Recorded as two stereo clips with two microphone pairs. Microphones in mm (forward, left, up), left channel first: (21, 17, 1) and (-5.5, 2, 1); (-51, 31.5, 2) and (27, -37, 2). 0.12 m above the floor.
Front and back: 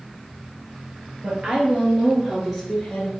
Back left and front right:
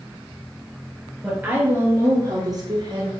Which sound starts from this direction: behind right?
A woman speaking, at 1.2 s.